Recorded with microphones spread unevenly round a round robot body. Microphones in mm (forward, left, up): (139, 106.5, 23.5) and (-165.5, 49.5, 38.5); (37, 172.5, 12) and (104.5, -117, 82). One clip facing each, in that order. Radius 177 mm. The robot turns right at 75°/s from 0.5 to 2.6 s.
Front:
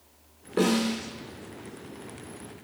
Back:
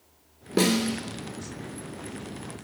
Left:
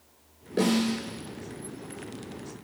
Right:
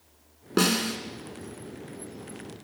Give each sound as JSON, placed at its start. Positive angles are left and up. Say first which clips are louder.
{"t": 0.6, "sound": "a snare drum", "louder": "back 1 dB, left 2 dB", "azimuth_deg": -115, "distance_m": 1.3}